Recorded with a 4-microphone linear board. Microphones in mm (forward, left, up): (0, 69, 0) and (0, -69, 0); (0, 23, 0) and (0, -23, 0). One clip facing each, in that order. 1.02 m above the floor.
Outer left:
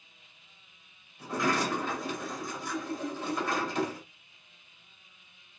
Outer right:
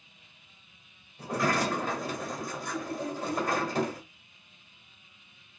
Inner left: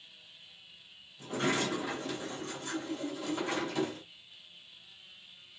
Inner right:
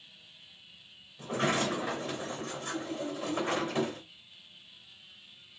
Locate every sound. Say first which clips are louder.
1.2 s a sliding door: outer right 1 dB, inner right 2 dB; 40° right (ahead or behind), 2.5 m